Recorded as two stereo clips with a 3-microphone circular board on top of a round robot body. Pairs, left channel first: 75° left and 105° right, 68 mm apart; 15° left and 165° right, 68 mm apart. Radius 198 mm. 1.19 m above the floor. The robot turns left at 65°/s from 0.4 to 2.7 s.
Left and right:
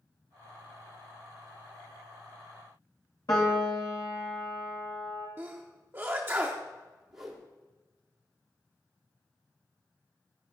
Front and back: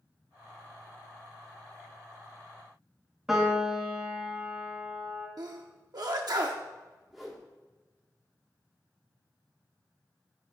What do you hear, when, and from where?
3.3 s a piano: 115° left, 0.7 m
5.4 s a sneeze: 165° right, 0.8 m
7.1 s a whoosh: 80° right, 0.8 m